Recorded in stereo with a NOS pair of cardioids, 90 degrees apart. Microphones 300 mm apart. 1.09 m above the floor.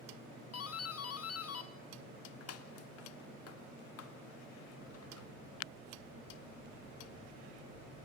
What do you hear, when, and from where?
0.5 s a doorbell: 55° left, 2 m